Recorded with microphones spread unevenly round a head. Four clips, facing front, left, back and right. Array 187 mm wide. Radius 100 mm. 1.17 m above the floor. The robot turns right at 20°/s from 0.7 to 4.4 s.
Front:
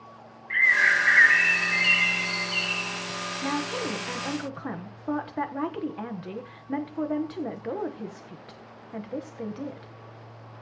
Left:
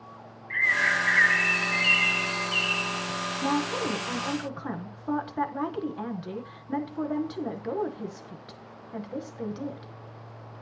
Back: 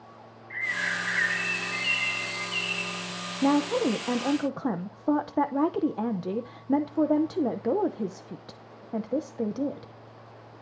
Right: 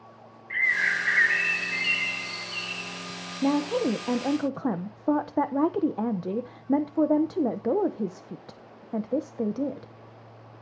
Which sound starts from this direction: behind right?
A woman speaking, at 3.4 s.